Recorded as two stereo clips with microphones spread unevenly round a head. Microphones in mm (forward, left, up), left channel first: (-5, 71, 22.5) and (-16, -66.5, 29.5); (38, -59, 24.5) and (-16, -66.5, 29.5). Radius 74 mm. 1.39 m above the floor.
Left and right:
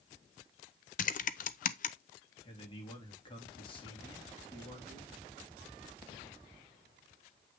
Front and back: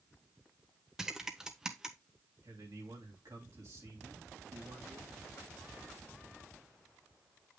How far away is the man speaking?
About 3 m.